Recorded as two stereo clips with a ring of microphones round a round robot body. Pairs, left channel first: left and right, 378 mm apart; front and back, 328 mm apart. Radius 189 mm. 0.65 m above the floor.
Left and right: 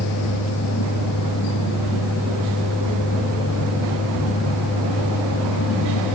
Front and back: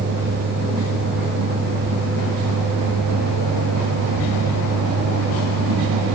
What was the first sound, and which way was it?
Only background noise.